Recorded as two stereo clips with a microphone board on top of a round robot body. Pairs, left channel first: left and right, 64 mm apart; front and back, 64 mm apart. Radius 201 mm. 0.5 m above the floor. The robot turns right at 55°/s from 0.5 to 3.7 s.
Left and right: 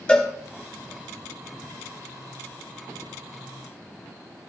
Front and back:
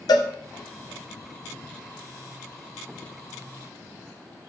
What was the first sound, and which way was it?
A cowbell, 15° left.